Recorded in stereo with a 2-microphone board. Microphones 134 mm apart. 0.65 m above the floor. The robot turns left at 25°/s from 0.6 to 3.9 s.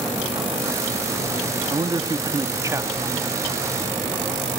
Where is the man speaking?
115° right, 1.0 m; by 3.4 s 160° right, 1.0 m.